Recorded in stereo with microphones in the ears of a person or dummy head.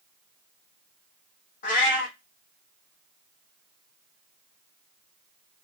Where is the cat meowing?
55° left (ahead or behind), 1.2 m.